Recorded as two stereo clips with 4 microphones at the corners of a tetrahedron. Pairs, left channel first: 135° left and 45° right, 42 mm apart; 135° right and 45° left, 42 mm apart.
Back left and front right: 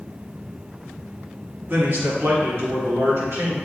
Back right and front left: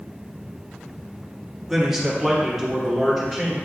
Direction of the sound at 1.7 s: 35° right.